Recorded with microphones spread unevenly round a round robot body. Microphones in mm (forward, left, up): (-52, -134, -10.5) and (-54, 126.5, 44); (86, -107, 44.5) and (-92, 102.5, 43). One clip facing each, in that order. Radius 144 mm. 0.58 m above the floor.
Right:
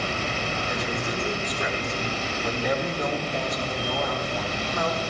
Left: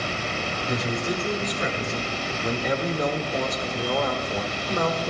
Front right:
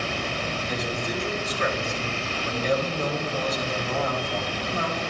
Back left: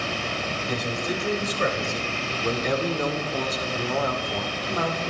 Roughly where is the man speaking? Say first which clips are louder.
Left 6 dB, back left 3 dB; left.